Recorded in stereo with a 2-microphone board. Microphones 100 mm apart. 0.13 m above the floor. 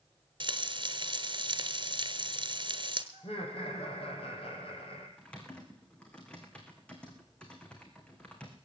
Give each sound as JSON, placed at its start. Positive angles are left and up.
{"t": 0.4, "sound": "frying", "side_deg": -50, "distance_m": 1.2}
{"t": 3.1, "sound": "laughter", "side_deg": 70, "distance_m": 5.0}
{"t": 5.2, "sound": "typing on a keyboard", "side_deg": 10, "distance_m": 3.0}